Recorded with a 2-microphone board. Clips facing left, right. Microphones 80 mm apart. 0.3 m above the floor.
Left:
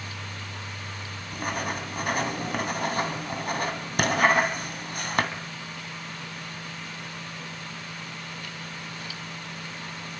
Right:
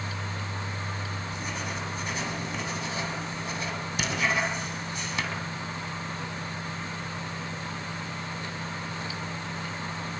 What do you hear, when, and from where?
1.3 s writing: 55° left (ahead or behind), 2.5 m